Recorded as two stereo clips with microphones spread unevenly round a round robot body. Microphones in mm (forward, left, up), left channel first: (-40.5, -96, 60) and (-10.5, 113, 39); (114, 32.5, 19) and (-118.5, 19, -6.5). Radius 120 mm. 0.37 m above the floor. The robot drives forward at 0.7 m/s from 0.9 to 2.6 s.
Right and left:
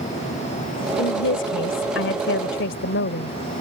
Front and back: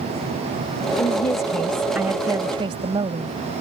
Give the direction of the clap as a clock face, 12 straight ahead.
I don't hear a clap.